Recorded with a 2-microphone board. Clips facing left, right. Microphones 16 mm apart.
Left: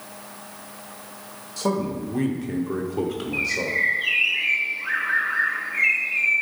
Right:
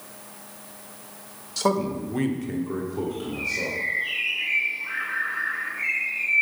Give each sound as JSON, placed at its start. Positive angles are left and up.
{"t": 1.6, "sound": "a man speaking", "side_deg": -30, "distance_m": 1.4}
{"t": 3.3, "sound": "a bird", "side_deg": 55, "distance_m": 3.0}